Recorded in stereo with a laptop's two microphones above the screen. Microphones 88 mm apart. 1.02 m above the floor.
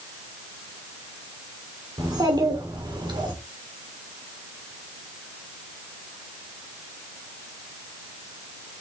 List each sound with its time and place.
2.0 s a child speaking: 45° right (ahead or behind), 3 m; by 3.3 s 60° right (ahead or behind), 3 m